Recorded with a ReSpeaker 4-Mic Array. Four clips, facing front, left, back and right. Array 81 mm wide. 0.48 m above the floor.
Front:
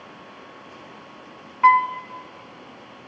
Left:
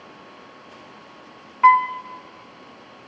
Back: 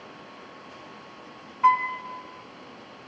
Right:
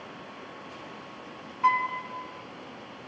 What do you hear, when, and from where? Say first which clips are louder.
1.6 s a piano: left 10 dB, front 5 dB; 55° left, 1.1 m